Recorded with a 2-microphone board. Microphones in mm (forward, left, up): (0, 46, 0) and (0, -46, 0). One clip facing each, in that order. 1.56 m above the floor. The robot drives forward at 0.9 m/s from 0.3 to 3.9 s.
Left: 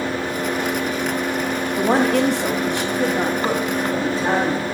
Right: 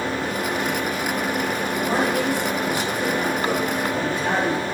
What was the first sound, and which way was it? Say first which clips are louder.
A woman speaking: left 6 dB; 60° left (ahead or behind).